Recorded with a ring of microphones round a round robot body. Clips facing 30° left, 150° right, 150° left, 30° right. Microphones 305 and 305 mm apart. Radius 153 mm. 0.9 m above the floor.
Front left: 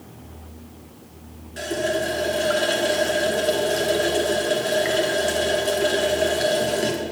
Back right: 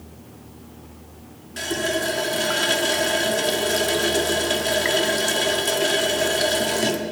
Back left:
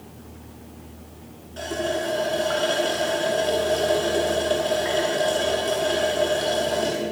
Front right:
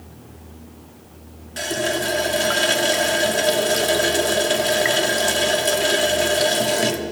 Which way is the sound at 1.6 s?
75° right.